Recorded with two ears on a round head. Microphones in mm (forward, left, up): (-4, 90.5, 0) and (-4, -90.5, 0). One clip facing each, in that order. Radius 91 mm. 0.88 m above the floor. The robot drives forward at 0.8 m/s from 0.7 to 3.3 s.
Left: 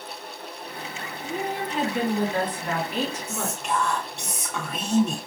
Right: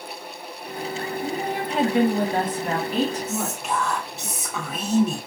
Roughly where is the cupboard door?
No cupboard door in this recording.